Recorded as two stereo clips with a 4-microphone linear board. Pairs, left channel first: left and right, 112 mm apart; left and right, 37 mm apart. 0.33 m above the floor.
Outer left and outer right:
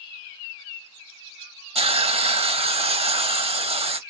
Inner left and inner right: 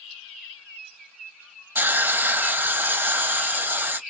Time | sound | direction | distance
1.8 | a hiss | 60° right (ahead or behind) | 0.8 m